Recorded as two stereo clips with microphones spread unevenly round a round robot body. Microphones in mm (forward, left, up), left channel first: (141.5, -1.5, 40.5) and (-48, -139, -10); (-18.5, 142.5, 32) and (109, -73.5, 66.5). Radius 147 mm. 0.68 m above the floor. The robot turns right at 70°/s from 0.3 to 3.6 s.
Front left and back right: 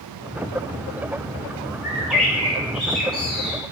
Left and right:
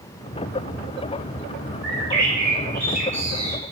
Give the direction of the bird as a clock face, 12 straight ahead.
3 o'clock.